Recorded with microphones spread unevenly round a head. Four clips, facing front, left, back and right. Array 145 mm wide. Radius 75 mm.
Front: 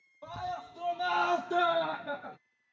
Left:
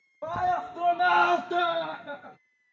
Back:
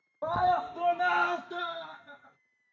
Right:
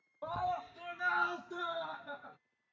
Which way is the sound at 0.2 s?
145° left.